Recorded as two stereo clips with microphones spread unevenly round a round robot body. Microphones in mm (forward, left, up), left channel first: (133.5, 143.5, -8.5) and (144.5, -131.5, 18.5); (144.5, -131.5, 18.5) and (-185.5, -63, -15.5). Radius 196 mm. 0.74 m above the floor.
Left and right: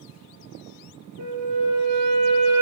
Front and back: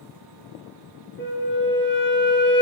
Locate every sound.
1.2 s a flute: 70° right, 5 m